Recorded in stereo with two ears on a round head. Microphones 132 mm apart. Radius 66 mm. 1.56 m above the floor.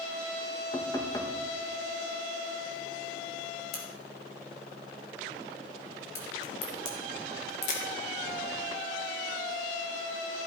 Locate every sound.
0.7 s knocking: 25° left (ahead or behind), 1.3 m
3.7 s a crack: 75° left (ahead or behind), 3.5 m